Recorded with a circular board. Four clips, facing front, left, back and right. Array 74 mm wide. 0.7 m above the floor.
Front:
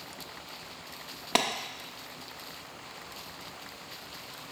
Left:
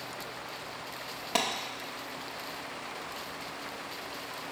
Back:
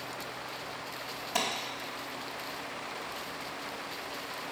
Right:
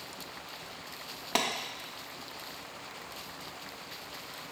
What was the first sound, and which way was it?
A clap, 5° right.